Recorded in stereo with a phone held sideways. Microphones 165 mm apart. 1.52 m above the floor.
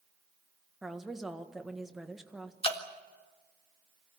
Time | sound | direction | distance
0.8 | a woman speaking | centre (ahead or behind) | 1.6 m
2.6 | dripping | 35° left (ahead or behind) | 1.7 m